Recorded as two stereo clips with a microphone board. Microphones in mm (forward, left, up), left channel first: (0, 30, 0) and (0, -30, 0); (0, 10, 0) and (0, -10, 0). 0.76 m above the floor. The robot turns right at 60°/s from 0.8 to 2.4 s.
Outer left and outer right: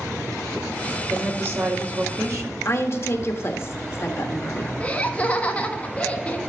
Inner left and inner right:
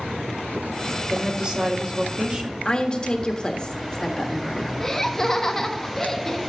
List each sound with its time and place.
1.1 s a woman speaking: 155° right, 2 m; by 2.5 s 80° right, 2 m
2.6 s a woman speaking: 50° left (ahead or behind), 1.4 m
4.8 s laughter: 25° left (ahead or behind), 1.3 m